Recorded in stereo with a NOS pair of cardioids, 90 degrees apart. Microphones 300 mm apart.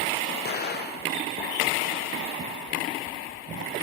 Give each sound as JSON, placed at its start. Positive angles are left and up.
{"t": 0.5, "sound": "an explosion", "azimuth_deg": 35, "distance_m": 0.7}